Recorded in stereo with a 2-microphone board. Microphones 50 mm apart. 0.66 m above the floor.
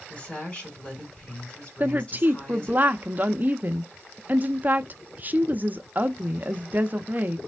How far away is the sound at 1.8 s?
About 0.6 m.